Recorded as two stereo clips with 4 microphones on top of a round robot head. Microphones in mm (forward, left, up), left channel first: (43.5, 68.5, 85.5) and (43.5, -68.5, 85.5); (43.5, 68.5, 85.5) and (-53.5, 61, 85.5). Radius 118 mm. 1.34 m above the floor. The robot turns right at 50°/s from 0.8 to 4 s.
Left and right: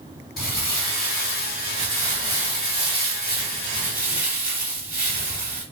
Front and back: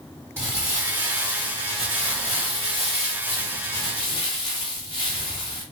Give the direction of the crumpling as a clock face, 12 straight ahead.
8 o'clock.